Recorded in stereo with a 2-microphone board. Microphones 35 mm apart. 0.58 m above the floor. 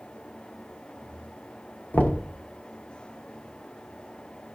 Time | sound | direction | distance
1.9 | knocking | 50° left (ahead or behind) | 1.0 m